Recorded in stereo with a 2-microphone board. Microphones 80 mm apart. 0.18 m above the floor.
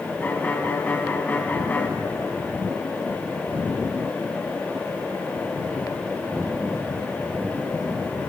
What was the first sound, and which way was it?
A violin, 25° left (ahead or behind).